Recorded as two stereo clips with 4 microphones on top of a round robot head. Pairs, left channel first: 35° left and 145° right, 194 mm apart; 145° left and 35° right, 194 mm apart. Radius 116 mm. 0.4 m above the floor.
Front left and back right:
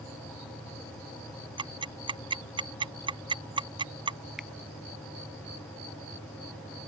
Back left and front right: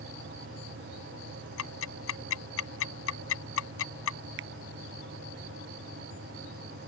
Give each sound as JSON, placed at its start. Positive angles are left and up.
{"t": 1.6, "sound": "ticking", "azimuth_deg": 150}
{"t": 4.4, "sound": "a finger snap", "azimuth_deg": -55}